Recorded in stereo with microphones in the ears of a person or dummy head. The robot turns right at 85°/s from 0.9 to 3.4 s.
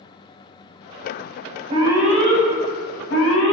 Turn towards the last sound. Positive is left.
turn(degrees=65)  # may be behind; listen again after turning